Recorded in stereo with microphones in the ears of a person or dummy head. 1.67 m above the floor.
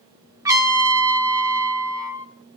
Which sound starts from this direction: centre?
A trumpet, at 0.5 s.